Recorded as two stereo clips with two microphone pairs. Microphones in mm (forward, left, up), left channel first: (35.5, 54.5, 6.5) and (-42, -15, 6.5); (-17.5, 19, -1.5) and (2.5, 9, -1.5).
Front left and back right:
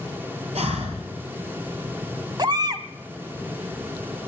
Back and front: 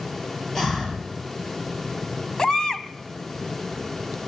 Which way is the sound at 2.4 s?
160° right.